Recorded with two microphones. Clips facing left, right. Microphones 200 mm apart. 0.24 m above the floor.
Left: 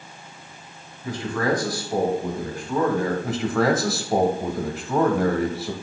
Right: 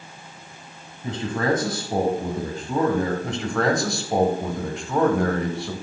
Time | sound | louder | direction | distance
1.0 | a man speaking | even | 25° right (ahead or behind) | 1.6 m
3.2 | a man speaking | left 2 dB | 5° left (ahead or behind) | 1.5 m